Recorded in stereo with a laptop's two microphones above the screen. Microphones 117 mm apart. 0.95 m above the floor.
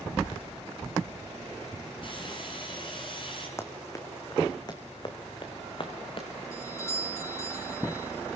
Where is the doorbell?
25° left (ahead or behind), 2.5 m.